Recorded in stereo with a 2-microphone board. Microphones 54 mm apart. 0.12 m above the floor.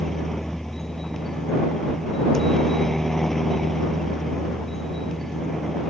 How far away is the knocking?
I don't hear knocking.